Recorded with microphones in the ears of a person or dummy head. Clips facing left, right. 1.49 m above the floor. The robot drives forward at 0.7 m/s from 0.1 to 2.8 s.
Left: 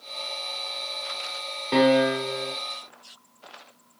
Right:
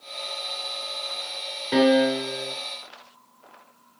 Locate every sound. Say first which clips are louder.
1.7 s a piano: right 1 dB; 5° left (ahead or behind), 3 m